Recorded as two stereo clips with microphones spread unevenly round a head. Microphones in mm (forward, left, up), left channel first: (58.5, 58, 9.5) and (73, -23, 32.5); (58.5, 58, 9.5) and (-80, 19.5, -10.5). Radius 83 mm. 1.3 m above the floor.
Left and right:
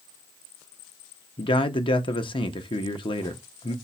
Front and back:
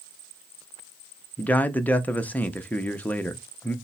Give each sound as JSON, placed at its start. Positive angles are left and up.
{"t": 1.4, "sound": "a man speaking", "azimuth_deg": 95, "distance_m": 0.6}